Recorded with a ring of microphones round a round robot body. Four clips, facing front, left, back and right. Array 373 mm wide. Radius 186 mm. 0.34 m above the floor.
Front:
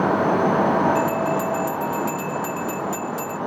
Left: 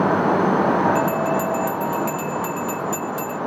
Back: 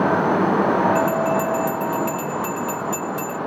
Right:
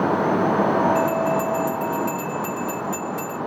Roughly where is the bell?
Behind left.